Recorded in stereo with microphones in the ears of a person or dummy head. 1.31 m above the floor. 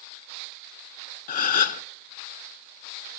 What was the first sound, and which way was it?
A gasp, 45° left (ahead or behind).